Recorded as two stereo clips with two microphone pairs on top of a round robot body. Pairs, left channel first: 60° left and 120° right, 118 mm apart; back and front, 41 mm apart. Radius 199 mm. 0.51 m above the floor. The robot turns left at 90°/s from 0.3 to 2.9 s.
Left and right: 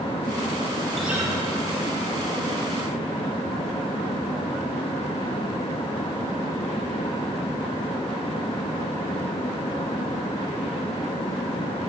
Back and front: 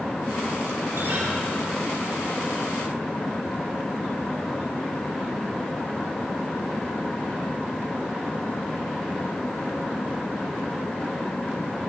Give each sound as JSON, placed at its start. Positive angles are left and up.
{"t": 0.9, "sound": "a guitar", "azimuth_deg": -25, "distance_m": 7.5}